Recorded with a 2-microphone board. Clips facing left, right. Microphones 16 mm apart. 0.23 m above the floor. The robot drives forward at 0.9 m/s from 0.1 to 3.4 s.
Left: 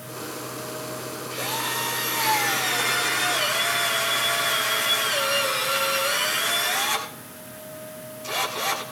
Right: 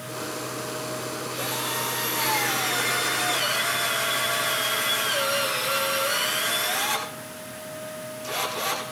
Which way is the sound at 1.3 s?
5° left (ahead or behind).